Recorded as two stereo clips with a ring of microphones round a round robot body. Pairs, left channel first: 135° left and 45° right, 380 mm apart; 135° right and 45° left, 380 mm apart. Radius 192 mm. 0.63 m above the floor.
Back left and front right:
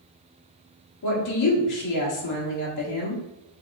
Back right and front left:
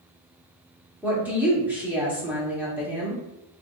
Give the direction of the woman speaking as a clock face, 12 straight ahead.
8 o'clock.